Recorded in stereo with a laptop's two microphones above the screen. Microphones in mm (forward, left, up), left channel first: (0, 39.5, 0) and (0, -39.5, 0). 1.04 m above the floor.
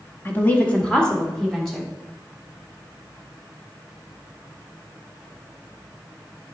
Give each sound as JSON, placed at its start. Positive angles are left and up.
{"t": 0.2, "sound": "a woman speaking", "side_deg": 30, "distance_m": 1.5}